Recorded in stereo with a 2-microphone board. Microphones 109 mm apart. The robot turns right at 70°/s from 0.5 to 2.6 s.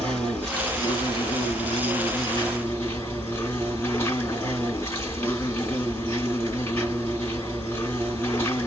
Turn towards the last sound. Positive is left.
turn(degrees=155)